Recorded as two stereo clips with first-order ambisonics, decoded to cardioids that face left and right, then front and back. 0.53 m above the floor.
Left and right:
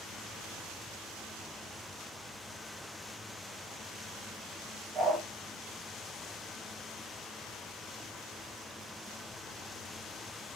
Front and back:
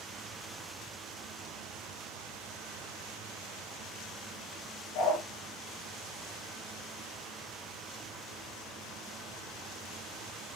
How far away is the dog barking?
About 5.5 m.